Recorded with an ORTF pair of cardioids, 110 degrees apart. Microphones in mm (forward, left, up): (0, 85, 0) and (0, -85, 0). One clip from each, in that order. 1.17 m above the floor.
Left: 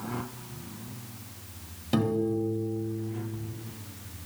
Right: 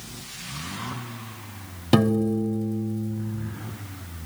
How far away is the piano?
About 1.0 m.